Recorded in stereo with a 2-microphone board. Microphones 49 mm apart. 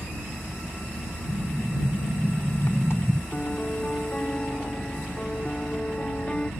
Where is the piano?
20° left (ahead or behind).